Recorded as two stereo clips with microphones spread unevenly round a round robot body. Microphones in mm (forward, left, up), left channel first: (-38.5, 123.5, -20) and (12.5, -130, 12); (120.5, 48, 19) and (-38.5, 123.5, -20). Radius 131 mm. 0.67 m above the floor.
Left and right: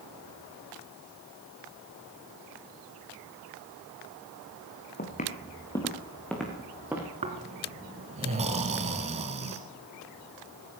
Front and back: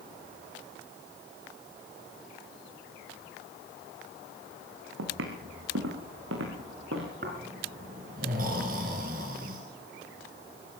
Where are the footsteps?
160° left, 3 m; by 7.1 s 160° right, 4.5 m.